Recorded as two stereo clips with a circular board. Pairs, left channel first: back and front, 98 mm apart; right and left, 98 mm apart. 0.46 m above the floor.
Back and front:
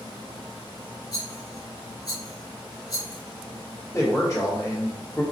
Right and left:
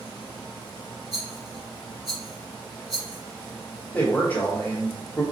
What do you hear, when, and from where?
1.1 s a rattle: 135° left, 1.7 m
3.9 s a man speaking: 150° right, 1.5 m